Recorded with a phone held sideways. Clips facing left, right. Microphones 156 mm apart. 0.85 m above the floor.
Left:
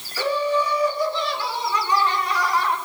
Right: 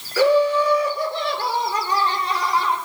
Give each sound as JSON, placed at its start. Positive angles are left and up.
{"t": 0.2, "sound": "laughter", "side_deg": -80, "distance_m": 3.5}